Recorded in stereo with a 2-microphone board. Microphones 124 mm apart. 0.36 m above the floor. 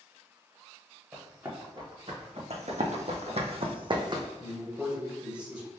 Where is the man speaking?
10° right (ahead or behind), 1.1 m.